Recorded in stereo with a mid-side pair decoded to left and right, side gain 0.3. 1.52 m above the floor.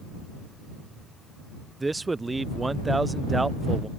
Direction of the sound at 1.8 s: 30° right.